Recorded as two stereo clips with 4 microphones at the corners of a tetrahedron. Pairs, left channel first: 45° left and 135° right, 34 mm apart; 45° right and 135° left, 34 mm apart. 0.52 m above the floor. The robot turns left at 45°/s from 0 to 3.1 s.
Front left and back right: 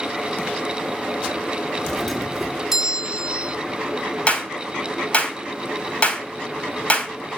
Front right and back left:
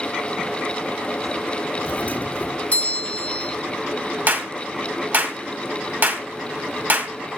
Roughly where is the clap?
Left.